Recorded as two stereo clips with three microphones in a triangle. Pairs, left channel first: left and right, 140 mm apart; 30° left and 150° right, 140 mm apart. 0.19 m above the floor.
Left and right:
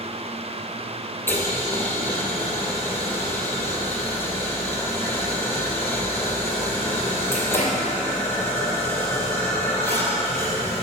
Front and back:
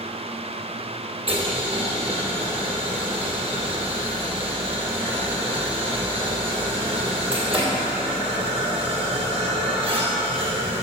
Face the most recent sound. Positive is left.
turn(degrees=160)